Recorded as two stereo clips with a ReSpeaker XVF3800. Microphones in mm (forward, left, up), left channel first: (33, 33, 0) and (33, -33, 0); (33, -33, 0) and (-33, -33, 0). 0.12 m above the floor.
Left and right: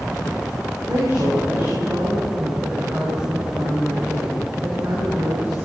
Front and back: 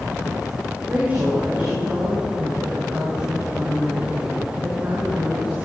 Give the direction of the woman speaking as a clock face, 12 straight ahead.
4 o'clock.